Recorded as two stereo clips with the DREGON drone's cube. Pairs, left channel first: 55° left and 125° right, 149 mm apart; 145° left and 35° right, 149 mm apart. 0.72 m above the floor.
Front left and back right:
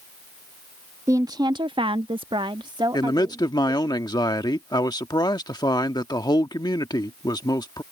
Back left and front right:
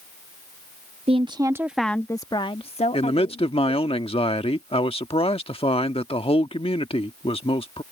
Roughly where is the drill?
No drill in this recording.